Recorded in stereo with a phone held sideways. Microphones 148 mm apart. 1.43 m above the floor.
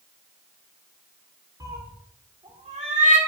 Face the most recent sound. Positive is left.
turn(degrees=-60)  # may be behind; listen again after turning